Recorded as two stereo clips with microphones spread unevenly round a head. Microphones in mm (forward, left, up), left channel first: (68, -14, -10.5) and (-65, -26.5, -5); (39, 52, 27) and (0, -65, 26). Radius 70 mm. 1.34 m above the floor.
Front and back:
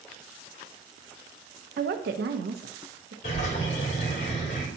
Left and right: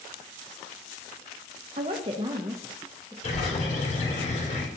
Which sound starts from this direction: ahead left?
A bird, at 3.2 s.